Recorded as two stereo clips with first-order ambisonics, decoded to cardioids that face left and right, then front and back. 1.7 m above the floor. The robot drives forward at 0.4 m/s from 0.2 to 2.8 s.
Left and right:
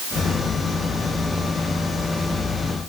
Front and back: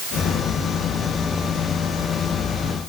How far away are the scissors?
I don't hear scissors.